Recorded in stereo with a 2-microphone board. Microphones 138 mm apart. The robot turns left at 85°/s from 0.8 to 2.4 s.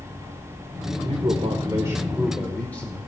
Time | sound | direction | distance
1.0 | a man speaking | 75° right | 1.1 m